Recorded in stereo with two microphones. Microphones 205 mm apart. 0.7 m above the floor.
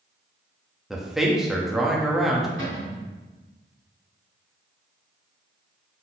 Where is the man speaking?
Centre (ahead or behind), 0.8 m.